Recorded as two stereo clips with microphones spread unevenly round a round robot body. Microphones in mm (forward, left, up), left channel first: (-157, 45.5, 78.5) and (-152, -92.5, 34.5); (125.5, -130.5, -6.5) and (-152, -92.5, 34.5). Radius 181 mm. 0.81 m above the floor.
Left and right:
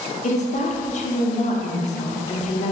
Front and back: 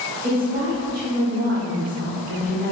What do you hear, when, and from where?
0.2 s a woman speaking: 120° left, 0.7 m